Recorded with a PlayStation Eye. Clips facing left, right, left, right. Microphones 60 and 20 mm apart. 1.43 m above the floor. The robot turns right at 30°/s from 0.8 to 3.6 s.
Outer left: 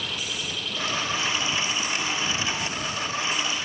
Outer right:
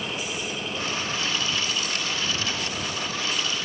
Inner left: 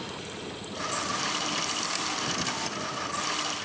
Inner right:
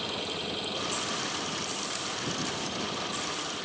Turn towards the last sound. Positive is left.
turn(degrees=-70)